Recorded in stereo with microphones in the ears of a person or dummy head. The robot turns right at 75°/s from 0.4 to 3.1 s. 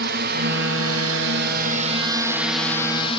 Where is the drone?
55° right (ahead or behind); by 3.2 s 30° left (ahead or behind).